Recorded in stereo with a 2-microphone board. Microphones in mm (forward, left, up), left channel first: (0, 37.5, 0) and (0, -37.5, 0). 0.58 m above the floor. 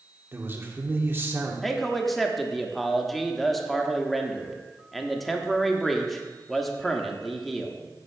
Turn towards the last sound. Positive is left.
turn(degrees=0)  # may be behind; listen again after turning